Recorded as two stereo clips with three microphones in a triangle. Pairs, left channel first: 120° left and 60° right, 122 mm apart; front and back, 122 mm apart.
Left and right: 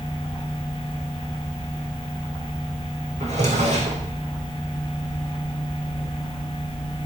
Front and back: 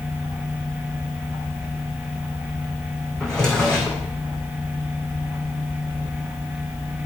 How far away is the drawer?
About 2.5 m.